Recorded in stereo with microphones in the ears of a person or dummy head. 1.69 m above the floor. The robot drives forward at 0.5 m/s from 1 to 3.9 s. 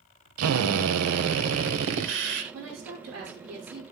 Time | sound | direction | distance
0.4 | a drill | 85° right | 1.1 m
2.5 | a woman speaking | 85° right | 6 m